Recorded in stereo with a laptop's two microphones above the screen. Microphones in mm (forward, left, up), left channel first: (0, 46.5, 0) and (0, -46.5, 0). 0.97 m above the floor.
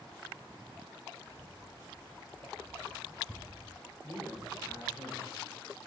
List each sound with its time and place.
1.3 s keys jangling: 40° left (ahead or behind), 4 m; by 4.8 s 10° right (ahead or behind), 1.5 m
4.0 s a man speaking: 50° left (ahead or behind), 3.5 m